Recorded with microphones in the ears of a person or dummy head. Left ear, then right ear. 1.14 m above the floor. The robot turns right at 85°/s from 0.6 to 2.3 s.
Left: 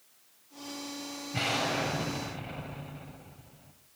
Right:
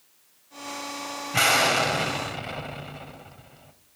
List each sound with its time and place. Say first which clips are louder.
1.3 s an explosion: right 10 dB; 140° right, 2.5 m; by 3.7 s 60° right, 2.5 m